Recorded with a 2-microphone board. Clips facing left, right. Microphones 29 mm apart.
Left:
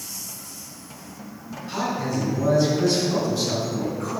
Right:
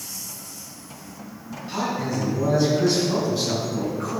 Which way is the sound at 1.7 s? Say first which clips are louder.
Even; 10° right (ahead or behind).